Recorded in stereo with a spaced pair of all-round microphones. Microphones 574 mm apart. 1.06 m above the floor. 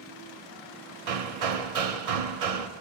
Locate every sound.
1.1 s hammering: 85° right, 0.6 m